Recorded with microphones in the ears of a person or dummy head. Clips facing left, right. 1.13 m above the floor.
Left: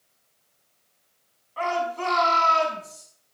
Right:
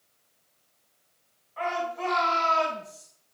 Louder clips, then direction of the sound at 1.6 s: Left 3 dB; 55° left (ahead or behind).